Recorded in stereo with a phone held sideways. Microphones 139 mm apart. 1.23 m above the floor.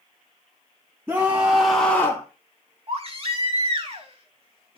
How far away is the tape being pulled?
No tape being pulled in this recording.